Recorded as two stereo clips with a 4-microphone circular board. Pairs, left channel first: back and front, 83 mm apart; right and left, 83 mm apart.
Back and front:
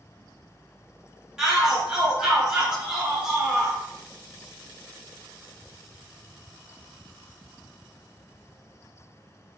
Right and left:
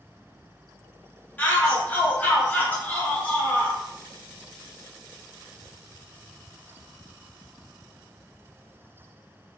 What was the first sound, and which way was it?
A shout, 65° right.